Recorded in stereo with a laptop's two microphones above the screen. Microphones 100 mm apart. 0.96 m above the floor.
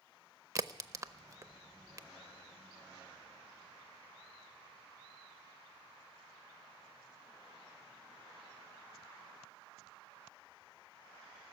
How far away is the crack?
About 0.6 m.